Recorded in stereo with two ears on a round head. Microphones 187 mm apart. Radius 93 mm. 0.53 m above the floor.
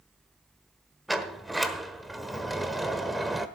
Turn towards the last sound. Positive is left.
turn(degrees=0)  # may be behind; listen again after turning